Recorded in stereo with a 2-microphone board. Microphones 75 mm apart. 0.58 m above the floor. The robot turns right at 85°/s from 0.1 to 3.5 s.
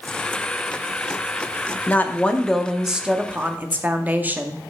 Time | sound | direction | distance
1.9 | a woman speaking | 25° left (ahead or behind) | 0.6 m